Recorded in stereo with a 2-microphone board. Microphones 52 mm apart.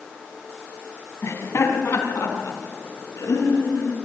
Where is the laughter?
70° left (ahead or behind), 4.5 m; by 4.0 s 75° left (ahead or behind), 7.5 m.